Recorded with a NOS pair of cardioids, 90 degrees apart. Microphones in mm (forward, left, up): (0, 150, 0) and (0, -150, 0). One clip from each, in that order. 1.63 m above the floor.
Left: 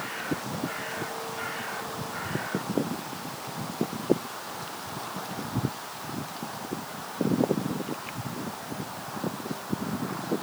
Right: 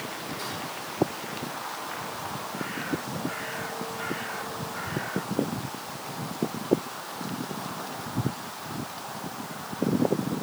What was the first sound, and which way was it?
Only background noise.